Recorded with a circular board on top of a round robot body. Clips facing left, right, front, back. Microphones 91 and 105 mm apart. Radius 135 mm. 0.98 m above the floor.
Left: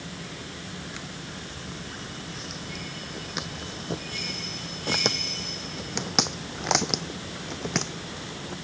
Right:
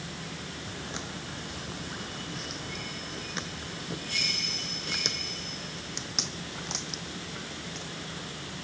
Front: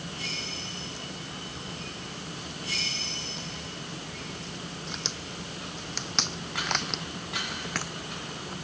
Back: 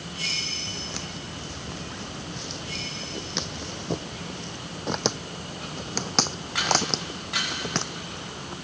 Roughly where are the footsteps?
Behind.